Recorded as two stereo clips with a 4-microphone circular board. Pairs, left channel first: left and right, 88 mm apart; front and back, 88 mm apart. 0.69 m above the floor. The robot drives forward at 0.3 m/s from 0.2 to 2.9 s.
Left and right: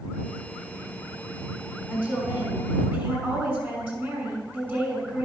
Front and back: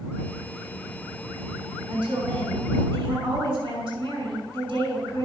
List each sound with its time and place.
1.9 s a woman speaking: 160° right, 5.5 m